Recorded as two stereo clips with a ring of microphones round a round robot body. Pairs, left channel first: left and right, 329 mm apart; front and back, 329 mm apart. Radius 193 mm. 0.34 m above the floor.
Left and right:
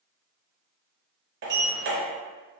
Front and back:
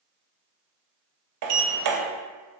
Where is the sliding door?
150° right, 0.6 m.